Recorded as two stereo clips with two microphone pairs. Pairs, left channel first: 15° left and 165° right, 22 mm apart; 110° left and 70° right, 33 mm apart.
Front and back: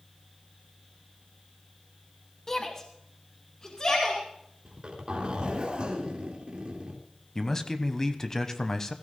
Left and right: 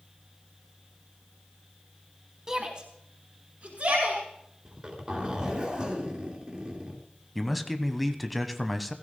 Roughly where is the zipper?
Behind right.